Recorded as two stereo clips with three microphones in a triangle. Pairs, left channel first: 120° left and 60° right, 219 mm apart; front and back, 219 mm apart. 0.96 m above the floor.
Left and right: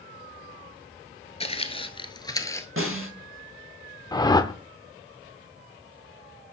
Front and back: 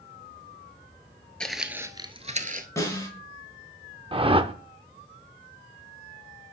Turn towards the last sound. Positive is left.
turn(degrees=160)